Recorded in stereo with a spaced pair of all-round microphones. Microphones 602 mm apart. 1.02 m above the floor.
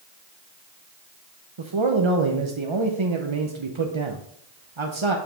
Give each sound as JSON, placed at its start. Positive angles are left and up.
{"t": 1.6, "sound": "a man speaking", "side_deg": -50, "distance_m": 0.8}